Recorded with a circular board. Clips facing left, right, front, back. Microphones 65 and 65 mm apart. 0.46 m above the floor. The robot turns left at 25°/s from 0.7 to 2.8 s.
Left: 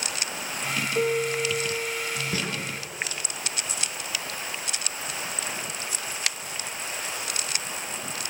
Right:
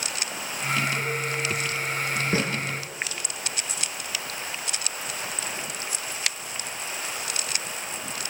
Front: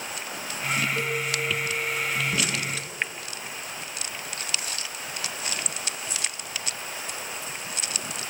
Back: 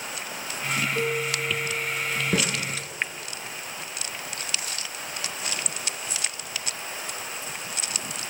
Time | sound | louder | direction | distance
0.9 | a piano | left 4 dB, back 1 dB | 105° left | 2 m
2.3 | a snare drum | right 6 dB, back 3 dB | 150° right | 6 m